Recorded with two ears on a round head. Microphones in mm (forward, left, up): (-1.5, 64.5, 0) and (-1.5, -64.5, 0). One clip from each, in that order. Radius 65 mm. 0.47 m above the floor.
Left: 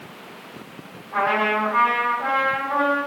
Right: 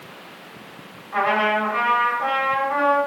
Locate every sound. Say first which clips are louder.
1.1 s a trumpet: right 1 dB; 60° right (ahead or behind), 2.5 m